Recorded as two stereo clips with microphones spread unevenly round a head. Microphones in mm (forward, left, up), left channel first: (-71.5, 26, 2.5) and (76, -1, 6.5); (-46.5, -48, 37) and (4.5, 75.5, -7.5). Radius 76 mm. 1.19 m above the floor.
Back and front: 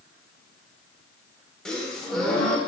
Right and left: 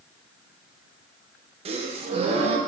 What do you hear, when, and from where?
1.6 s a gasp: 85° left, 0.6 m